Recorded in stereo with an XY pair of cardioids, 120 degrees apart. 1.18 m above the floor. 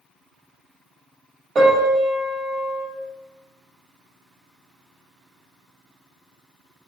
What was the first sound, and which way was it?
A piano, 50° right.